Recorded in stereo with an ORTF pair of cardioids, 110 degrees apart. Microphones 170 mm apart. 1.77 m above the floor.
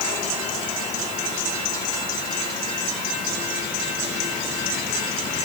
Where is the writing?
I don't hear writing.